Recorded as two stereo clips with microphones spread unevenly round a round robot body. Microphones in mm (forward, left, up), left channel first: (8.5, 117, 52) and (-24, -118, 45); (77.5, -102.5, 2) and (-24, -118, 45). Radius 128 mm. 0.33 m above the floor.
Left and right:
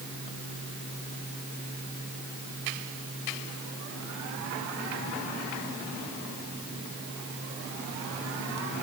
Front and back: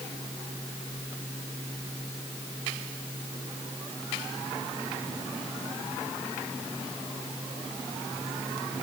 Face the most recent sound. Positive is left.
No sound to turn to.